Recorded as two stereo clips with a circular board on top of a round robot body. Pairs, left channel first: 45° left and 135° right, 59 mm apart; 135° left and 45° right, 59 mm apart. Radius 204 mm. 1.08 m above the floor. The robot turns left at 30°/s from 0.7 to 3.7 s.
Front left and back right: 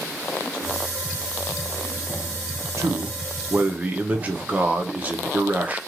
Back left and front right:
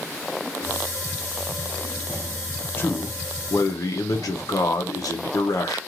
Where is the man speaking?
170° right, 0.8 m; by 5.8 s 160° left, 0.8 m.